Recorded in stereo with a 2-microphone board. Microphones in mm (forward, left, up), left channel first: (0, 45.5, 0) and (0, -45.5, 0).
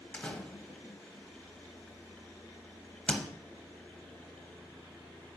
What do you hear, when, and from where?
0.1 s a door slam: 10° left (ahead or behind), 0.8 m